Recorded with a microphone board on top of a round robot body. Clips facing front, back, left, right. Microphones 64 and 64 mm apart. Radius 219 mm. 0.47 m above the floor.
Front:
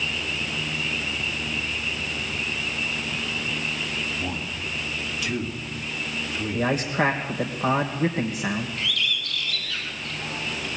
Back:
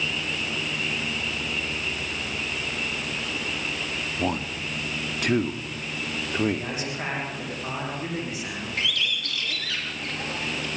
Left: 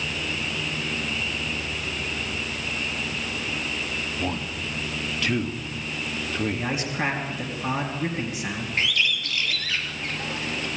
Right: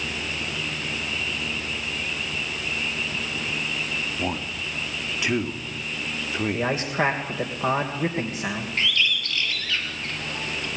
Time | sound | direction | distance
4.2 | a man speaking | 160° right | 2.0 m
6.5 | a man speaking | 45° right | 3 m
8.8 | a bird | 160° left | 3.5 m